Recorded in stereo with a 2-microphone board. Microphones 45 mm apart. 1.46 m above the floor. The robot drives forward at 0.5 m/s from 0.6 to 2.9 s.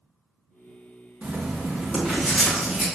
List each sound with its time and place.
1.2 s writing: 45° right (ahead or behind), 0.6 m; by 2.9 s 20° right (ahead or behind), 1.3 m